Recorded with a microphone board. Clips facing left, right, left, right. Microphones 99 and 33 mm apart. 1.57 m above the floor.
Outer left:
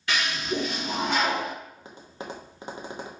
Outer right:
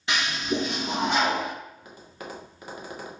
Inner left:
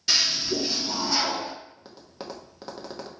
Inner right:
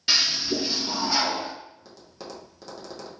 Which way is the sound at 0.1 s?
20° right (ahead or behind).